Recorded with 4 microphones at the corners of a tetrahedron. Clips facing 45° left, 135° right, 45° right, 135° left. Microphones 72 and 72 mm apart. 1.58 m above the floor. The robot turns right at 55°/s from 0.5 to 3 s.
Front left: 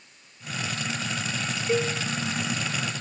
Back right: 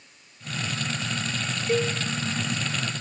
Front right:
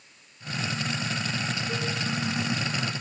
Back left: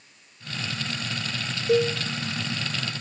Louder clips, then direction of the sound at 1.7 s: Back right 1 dB, back left 10 dB; 130° left.